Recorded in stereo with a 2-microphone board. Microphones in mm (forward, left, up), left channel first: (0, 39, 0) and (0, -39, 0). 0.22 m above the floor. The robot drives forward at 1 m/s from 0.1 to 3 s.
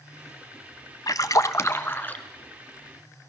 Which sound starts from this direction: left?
A splash, at 1.1 s.